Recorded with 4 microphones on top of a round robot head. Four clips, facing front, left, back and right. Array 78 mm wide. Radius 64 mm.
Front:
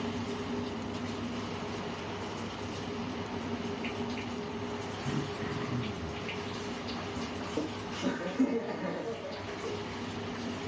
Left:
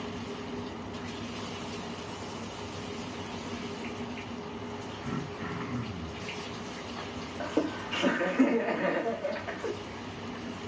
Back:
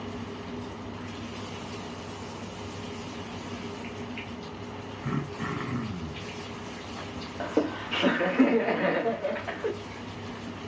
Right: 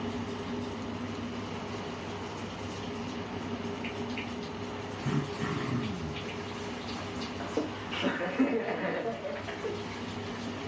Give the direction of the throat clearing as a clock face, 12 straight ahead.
6 o'clock.